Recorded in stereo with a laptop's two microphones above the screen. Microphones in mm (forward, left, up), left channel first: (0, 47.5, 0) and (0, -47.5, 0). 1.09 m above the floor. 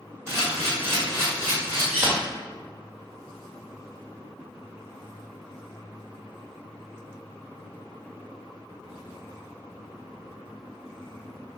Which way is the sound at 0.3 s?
25° right (ahead or behind).